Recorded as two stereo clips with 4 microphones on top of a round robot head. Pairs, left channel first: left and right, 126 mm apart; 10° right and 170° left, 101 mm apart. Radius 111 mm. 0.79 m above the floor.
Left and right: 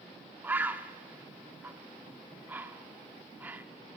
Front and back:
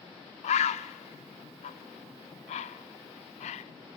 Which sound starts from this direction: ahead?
A bird, at 0.4 s.